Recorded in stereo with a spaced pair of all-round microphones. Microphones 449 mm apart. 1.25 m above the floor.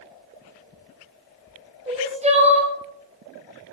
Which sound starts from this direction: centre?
Crying, at 1.9 s.